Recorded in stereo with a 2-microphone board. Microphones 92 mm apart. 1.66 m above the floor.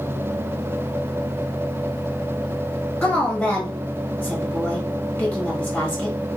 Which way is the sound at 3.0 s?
5° left (ahead or behind).